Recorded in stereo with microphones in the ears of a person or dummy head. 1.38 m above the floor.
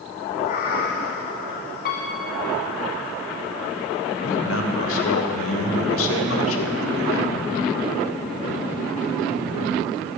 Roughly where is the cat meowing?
Left.